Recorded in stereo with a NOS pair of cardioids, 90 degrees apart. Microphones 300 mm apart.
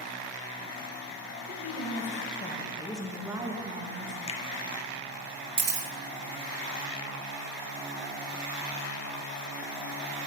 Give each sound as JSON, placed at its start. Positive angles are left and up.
{"t": 1.5, "sound": "a woman speaking", "azimuth_deg": 55, "distance_m": 1.8}
{"t": 4.3, "sound": "a finger snap", "azimuth_deg": 20, "distance_m": 0.6}
{"t": 5.6, "sound": "a camera shutter", "azimuth_deg": -35, "distance_m": 1.1}